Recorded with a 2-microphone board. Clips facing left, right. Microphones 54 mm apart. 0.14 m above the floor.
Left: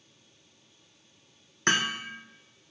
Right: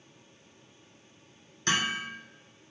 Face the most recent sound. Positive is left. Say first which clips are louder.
# left 2 dB
turn(degrees=50)  # may be behind; listen again after turning